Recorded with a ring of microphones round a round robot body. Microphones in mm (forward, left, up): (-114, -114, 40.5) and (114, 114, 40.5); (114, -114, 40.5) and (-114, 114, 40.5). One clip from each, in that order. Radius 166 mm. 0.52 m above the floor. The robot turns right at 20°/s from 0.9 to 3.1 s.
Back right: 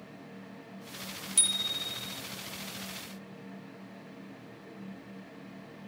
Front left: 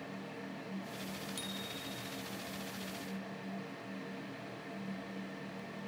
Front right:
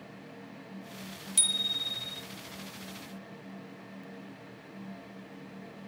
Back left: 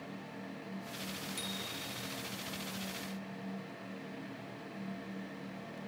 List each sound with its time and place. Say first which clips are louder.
1.4 s a bicycle bell: back right 17 dB, front right 15 dB; 90° right; by 2.2 s 70° right